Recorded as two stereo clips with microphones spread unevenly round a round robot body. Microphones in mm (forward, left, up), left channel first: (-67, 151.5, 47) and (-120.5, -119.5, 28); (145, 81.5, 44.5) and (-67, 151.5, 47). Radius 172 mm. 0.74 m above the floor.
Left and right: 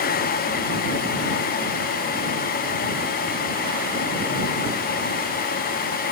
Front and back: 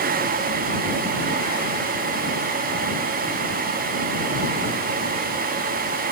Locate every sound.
Only background noise.